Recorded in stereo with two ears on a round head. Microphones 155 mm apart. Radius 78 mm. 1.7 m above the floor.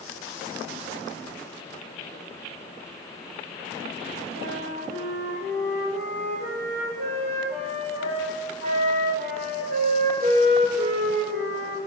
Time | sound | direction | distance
4.4 | a flute | 45° right (ahead or behind) | 7.5 m